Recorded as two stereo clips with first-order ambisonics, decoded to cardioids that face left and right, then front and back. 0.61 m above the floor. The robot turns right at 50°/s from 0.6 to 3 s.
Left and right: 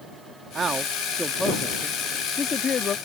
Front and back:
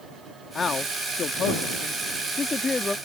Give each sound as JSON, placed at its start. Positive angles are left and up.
{"t": 0.6, "sound": "a man speaking", "azimuth_deg": -50}